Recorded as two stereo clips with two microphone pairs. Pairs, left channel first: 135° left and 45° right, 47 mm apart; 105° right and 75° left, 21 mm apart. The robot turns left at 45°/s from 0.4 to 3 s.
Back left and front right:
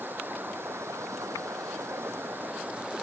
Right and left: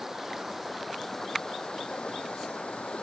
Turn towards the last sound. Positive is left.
turn(degrees=-115)